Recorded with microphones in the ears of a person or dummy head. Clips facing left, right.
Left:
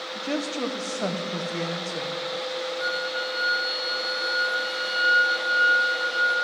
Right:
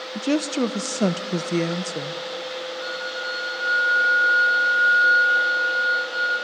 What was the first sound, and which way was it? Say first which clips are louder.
A woman speaking: right 7 dB; 50° right (ahead or behind).